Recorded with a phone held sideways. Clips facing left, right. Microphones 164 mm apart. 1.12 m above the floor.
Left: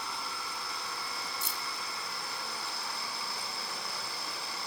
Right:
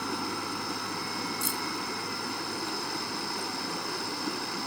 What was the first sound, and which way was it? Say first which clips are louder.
Running water: right 8 dB; 60° right (ahead or behind).